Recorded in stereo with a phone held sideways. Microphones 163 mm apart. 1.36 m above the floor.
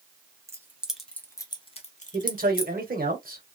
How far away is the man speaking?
About 1.0 m.